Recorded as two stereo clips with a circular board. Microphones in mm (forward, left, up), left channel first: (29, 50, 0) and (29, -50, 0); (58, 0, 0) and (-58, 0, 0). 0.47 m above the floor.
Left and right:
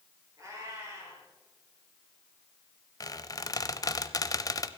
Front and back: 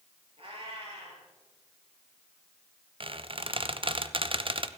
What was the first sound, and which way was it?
A cat meowing, 145° right.